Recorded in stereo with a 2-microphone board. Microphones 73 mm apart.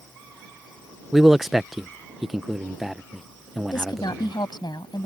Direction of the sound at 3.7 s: 85° left.